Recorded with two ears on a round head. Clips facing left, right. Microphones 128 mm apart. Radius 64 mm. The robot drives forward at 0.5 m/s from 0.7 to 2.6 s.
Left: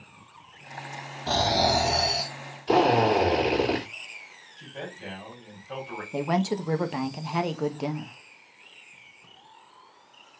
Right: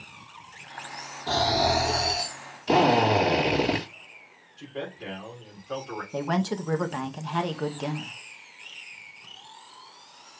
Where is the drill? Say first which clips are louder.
Even; 20° right (ahead or behind), 3 m.